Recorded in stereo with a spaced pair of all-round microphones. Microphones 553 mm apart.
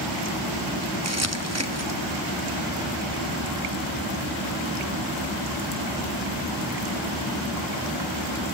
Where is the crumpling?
30° right (ahead or behind), 1.0 m.